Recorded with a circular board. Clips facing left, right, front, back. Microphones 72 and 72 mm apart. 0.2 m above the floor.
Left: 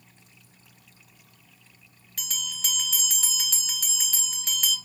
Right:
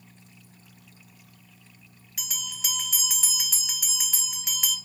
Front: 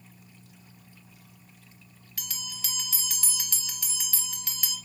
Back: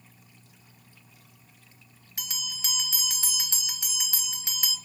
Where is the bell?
160° right, 0.9 m.